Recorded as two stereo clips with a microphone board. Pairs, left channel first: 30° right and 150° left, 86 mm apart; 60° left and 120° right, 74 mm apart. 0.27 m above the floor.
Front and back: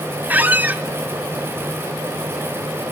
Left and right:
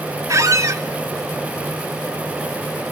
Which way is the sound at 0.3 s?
145° right.